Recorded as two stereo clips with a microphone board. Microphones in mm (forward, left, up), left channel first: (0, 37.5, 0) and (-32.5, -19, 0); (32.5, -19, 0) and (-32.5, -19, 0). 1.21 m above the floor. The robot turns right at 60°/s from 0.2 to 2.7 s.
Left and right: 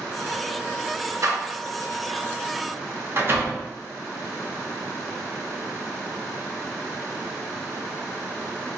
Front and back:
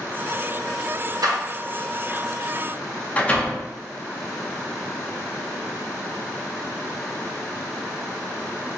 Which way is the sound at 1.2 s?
160° right.